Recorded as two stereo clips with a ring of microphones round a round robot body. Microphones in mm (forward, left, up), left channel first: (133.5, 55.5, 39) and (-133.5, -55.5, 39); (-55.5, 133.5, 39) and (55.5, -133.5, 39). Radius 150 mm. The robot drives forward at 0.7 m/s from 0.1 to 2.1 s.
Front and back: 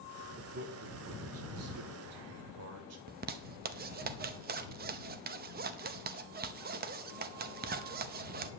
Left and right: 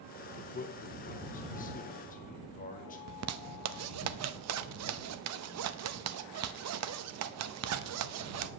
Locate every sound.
0.4 s a man speaking: 165° left, 1.1 m; by 3.0 s 175° left, 2 m
3.1 s a zipper: 100° right, 0.7 m